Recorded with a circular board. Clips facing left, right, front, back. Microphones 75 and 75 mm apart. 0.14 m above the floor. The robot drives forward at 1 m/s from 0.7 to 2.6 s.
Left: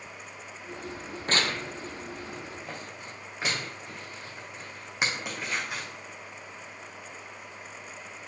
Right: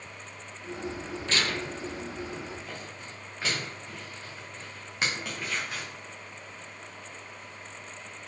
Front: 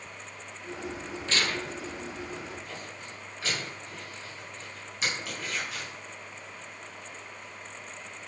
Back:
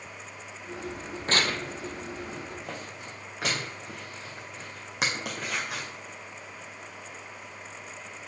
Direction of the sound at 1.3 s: 135° left.